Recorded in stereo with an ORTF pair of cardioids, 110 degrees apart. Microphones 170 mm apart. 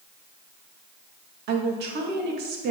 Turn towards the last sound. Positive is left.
turn(degrees=-65)